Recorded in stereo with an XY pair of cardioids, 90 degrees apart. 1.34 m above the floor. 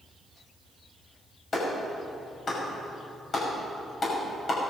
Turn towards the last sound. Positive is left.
turn(degrees=45)